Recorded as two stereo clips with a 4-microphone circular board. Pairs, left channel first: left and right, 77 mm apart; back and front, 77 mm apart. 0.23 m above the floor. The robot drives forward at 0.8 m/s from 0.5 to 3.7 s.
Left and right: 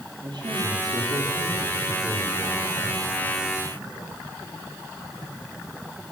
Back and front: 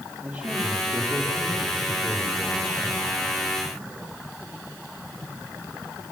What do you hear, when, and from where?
0.2 s a man speaking: 85° right, 6.5 m; by 3.0 s 105° right, 7 m